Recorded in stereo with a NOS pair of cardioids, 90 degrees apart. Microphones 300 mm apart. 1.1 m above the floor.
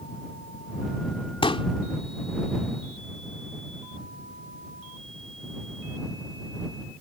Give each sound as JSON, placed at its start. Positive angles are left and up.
{"t": 1.4, "sound": "a pop", "azimuth_deg": 15}